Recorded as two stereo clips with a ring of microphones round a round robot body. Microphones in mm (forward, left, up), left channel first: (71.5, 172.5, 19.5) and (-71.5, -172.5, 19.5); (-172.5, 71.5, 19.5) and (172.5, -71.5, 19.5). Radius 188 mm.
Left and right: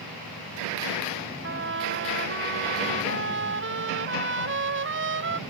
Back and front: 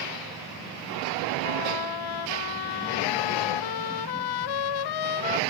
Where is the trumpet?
175° right.